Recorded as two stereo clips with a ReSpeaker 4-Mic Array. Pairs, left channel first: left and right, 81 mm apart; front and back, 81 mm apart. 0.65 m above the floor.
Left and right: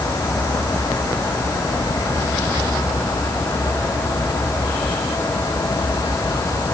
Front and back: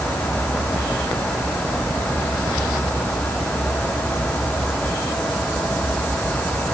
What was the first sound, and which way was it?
Only background noise.